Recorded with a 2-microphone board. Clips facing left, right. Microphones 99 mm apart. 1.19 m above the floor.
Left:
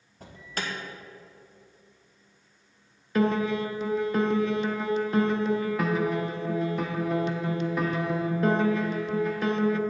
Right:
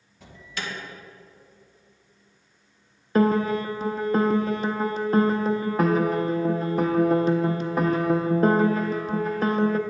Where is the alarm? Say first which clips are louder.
Left 1 dB; 45° left (ahead or behind), 1.3 m.